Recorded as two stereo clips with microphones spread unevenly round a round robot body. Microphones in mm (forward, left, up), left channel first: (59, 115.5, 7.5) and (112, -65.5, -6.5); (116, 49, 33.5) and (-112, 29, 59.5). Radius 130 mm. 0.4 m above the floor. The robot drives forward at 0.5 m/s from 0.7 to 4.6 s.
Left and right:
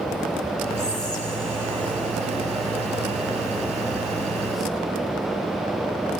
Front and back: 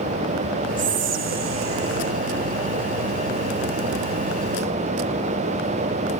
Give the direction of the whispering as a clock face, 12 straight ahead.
6 o'clock.